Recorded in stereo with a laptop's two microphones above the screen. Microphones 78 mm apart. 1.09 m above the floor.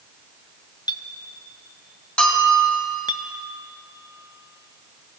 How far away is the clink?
About 0.6 m.